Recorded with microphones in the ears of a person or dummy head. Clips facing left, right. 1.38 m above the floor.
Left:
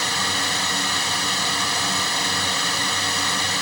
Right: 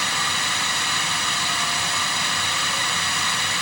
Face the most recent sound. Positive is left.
turn(degrees=35)  # may be behind; listen again after turning